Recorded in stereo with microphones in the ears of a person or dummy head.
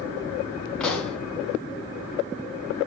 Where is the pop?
5° left (ahead or behind), 2.5 m.